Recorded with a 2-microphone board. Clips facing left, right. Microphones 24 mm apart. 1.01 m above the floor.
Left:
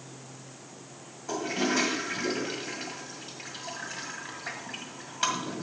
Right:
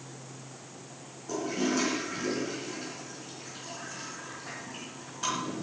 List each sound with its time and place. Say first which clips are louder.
1.3 s a toilet flushing: left 1 dB; 70° left (ahead or behind), 2 m